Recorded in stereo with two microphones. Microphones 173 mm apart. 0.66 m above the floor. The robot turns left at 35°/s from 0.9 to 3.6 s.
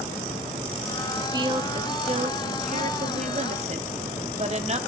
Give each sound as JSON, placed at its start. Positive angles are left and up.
{"t": 1.2, "sound": "a woman speaking", "azimuth_deg": -30, "distance_m": 1.5}